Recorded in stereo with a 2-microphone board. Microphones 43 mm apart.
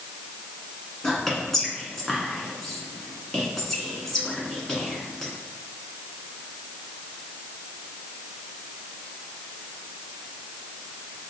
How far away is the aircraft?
No aircraft in this recording.